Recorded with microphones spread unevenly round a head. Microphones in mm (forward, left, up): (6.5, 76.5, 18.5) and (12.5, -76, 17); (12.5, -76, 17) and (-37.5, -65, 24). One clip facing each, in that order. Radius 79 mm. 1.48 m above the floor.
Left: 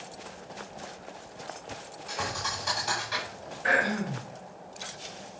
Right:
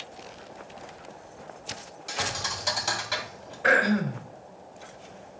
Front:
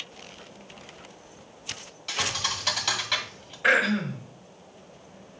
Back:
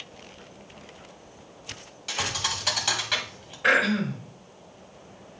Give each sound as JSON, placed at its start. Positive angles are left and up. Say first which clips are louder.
{"t": 2.1, "sound": "a thud", "louder": "right 1 dB, even", "azimuth_deg": -115, "distance_m": 2.5}
{"t": 3.6, "sound": "throat clearing", "louder": "right 5 dB, even", "azimuth_deg": -100, "distance_m": 3.5}